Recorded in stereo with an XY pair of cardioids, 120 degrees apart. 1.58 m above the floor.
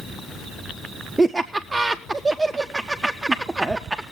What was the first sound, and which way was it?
Laughter, 10° right.